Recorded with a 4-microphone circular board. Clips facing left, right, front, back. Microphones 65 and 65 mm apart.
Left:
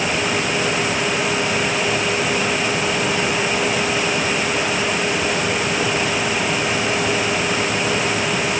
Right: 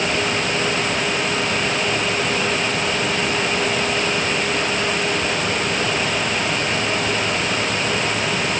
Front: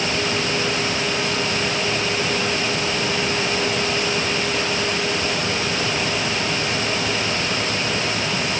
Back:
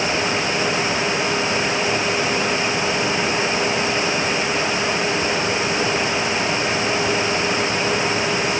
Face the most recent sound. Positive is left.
No sound to turn to.